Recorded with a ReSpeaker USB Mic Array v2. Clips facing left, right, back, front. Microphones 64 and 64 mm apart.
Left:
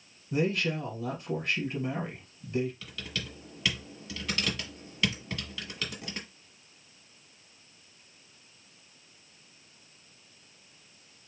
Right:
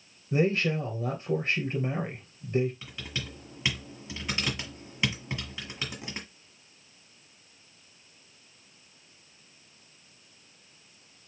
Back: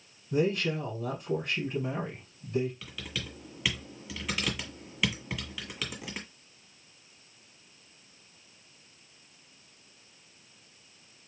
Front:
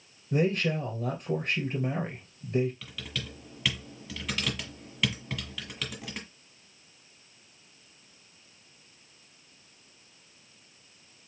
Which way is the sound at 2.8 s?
105° right.